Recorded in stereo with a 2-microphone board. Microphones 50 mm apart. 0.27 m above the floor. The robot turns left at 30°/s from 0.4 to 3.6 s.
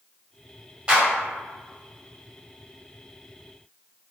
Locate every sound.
0.9 s a clap: 15° right (ahead or behind), 1.2 m; by 1.1 s 20° right (ahead or behind), 1.2 m